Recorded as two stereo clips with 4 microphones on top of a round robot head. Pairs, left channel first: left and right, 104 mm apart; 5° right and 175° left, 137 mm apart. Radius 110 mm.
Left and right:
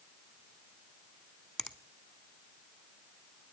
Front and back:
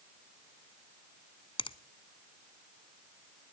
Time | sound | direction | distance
1.6 | a finger snap | straight ahead | 1.2 m